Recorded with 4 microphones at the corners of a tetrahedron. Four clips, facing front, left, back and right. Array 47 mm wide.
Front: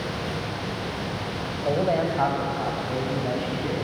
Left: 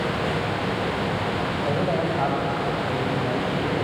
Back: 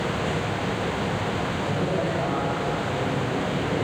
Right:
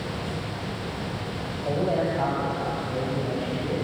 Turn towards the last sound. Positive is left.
turn(degrees=30)